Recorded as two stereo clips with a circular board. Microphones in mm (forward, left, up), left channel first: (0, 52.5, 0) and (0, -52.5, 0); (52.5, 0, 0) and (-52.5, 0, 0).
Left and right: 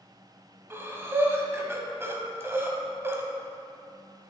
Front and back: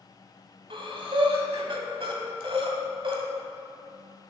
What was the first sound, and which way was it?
Breathing, 155° right.